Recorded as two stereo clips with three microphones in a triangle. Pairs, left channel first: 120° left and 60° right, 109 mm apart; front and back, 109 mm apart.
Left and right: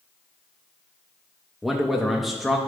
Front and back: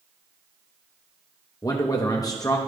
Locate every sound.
1.6 s a man speaking: 30° left, 0.8 m